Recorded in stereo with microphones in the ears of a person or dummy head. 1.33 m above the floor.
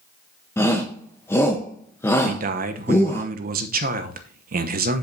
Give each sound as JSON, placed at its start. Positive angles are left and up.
{"t": 0.6, "sound": "a shout", "side_deg": 15, "distance_m": 0.9}
{"t": 2.2, "sound": "a man speaking", "side_deg": -50, "distance_m": 0.9}